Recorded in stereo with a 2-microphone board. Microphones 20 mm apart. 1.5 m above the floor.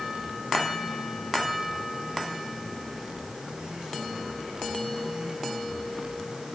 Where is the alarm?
No alarm in this recording.